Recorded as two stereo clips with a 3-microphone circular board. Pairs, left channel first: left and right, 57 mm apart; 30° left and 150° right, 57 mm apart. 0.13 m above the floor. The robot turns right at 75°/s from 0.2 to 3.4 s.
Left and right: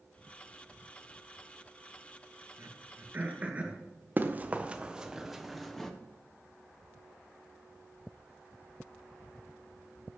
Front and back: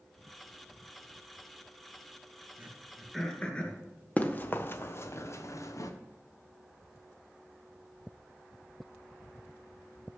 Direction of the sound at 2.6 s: 95° right.